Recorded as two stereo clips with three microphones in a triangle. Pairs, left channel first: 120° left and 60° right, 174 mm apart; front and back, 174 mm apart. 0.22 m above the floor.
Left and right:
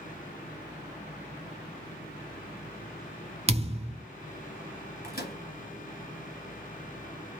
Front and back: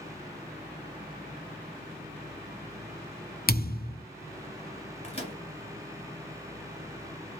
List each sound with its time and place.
3.5 s a thud: 10° right, 0.7 m
5.0 s a microwave: 135° left, 1.9 m